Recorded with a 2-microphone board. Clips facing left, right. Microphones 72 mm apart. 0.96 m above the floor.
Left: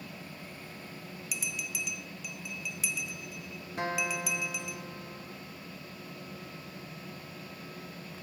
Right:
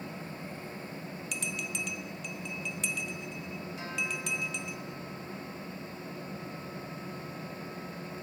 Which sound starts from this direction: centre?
A bell, at 1.3 s.